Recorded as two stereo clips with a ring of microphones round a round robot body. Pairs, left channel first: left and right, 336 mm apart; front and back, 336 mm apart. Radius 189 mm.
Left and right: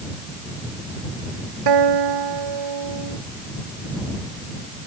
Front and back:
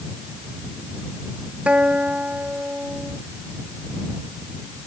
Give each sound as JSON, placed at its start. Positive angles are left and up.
{"t": 1.7, "sound": "a guitar", "azimuth_deg": -95}